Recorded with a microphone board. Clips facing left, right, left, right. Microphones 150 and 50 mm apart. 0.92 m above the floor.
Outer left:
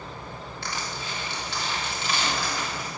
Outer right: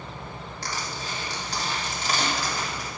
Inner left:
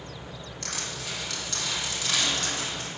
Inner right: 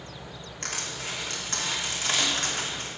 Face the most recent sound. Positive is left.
turn(degrees=-40)  # may be behind; listen again after turning